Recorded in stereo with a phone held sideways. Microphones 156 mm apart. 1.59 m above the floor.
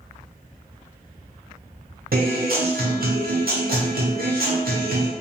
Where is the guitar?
70° right (ahead or behind), 0.7 m.